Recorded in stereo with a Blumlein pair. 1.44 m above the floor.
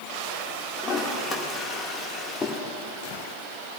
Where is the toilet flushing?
15° left, 1.7 m.